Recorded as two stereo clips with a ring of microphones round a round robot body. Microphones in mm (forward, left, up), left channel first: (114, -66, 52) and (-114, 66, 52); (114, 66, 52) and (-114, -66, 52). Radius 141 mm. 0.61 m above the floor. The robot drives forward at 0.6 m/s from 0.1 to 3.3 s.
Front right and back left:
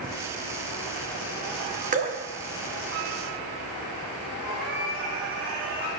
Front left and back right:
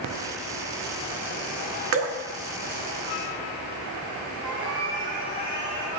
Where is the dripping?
155° right, 1.3 m; by 2.2 s 160° right, 1.4 m.